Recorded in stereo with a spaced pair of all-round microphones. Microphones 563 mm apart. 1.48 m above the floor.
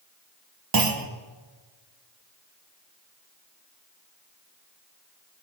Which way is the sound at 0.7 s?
40° right (ahead or behind).